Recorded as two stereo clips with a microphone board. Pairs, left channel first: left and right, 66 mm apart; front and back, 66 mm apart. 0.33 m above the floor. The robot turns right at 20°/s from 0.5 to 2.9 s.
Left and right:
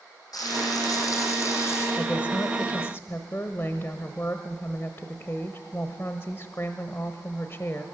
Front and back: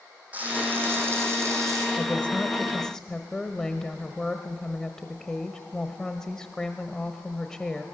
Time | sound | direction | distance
0.3 | frying | 115° left | 8.5 m
2.0 | a woman speaking | 55° left | 1.1 m